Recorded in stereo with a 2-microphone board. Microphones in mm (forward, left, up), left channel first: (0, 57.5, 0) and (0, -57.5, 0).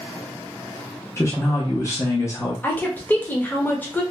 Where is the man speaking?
25° left (ahead or behind), 0.7 m.